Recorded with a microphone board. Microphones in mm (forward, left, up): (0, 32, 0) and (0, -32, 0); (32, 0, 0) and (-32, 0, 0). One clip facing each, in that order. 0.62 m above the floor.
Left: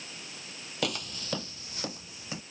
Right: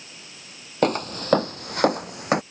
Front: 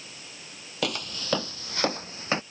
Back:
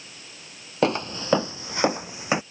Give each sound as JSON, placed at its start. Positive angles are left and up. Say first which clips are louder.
{"t": 0.8, "sound": "footsteps", "louder": "right 12 dB, back 8 dB", "azimuth_deg": -125}